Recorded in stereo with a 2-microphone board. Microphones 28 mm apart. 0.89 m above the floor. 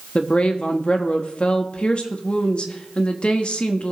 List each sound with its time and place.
0.1 s a woman speaking: 40° left (ahead or behind), 1.3 m